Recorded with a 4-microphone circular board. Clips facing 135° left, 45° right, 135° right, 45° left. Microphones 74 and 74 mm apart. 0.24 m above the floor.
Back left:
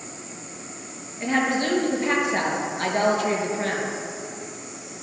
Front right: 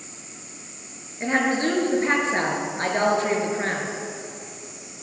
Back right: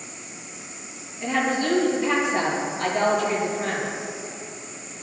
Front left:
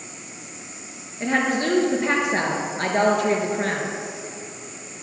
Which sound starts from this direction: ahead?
A woman speaking, at 1.2 s.